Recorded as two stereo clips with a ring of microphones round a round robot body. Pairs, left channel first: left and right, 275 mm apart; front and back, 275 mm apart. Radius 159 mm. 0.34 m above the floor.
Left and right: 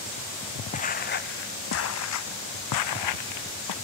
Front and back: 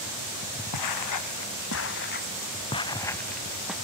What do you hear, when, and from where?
0.7 s footsteps: 25° left; by 3.7 s 95° left